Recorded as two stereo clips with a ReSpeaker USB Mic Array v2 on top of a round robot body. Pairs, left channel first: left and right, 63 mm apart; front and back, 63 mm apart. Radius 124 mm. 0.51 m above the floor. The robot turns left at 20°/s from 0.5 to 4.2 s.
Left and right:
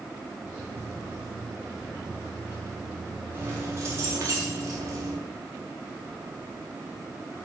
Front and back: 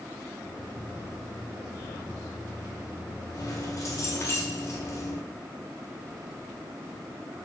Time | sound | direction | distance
3.3 | keys jangling | 35° right | 5 m